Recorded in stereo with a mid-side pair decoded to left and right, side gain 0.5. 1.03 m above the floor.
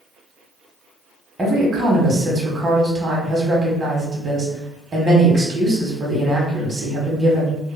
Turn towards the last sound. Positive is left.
turn(degrees=-30)